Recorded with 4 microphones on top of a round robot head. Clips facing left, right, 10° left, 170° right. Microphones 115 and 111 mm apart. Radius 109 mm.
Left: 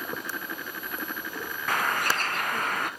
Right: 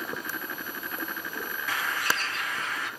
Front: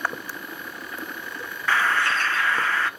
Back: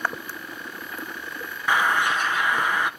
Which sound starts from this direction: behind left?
A bird, at 1.7 s.